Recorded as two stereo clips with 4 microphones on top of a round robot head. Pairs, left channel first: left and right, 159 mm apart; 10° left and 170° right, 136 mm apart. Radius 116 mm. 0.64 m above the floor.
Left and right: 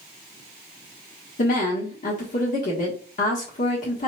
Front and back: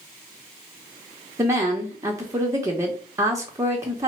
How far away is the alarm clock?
No alarm clock in this recording.